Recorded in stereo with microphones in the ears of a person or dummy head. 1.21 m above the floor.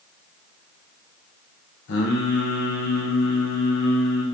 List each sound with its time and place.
1.9 s singing: 60° left (ahead or behind), 0.8 m